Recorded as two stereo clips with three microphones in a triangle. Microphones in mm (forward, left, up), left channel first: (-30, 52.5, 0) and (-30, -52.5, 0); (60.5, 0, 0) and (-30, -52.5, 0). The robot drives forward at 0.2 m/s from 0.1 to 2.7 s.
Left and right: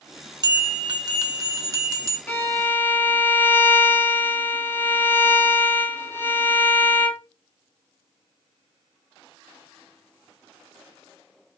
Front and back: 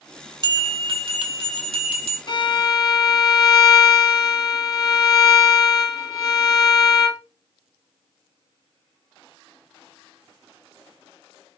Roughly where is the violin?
Ahead left.